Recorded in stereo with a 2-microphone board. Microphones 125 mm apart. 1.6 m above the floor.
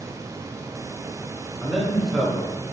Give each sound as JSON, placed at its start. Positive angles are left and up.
{"t": 1.6, "sound": "a man speaking", "side_deg": 0, "distance_m": 1.3}